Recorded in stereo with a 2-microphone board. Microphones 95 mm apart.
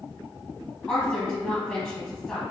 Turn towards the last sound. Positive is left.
turn(degrees=10)  # may be behind; listen again after turning